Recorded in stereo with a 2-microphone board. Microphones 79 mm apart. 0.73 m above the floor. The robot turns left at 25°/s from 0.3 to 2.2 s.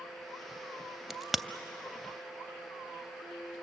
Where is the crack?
Centre (ahead or behind), 0.5 m; by 1.4 s 5° right (ahead or behind), 0.5 m.